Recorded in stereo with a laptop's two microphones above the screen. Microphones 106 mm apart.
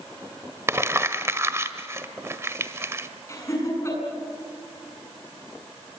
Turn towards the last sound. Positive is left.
turn(degrees=30)  # may be behind; listen again after turning